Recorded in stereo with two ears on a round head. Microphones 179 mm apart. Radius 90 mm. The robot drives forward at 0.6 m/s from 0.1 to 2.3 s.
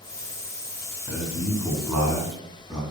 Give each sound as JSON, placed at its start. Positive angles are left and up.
{"t": 1.1, "sound": "a man speaking", "side_deg": -5, "distance_m": 3.0}